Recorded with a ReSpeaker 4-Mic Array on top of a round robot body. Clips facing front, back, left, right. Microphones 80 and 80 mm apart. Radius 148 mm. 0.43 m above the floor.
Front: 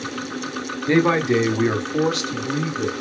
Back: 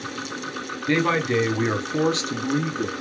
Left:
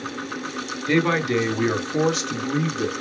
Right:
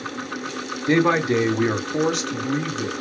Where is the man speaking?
50° right, 1.1 m; by 2.9 s 165° left, 1.3 m.